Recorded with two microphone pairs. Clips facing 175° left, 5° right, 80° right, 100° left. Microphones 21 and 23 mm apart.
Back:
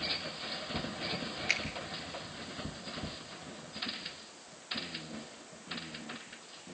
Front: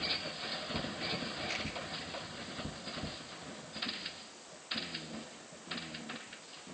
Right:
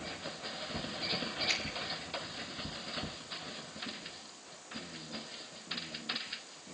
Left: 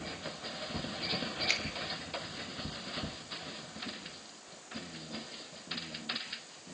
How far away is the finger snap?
About 4.5 m.